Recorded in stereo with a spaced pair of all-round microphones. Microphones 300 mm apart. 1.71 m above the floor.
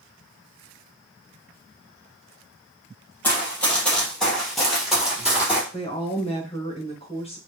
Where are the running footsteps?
5° left (ahead or behind), 1.9 m; by 5.6 s 5° right (ahead or behind), 1.7 m.